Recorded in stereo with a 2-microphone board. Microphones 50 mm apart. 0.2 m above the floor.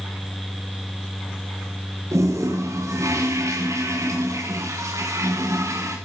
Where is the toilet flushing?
90° right, 4.5 m.